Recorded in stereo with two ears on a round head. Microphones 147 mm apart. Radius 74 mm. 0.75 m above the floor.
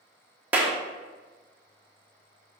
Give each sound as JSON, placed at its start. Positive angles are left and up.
{"t": 0.5, "sound": "a clap", "side_deg": -10, "distance_m": 1.2}